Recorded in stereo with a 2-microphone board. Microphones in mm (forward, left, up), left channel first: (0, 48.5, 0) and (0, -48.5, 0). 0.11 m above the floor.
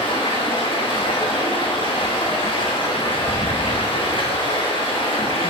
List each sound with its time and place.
0.0 s running water: 65° left (ahead or behind), 1.4 m